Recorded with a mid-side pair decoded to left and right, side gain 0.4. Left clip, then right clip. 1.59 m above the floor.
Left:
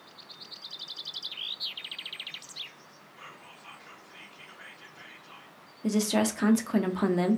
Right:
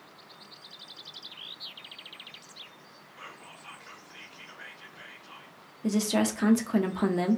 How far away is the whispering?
About 0.9 m.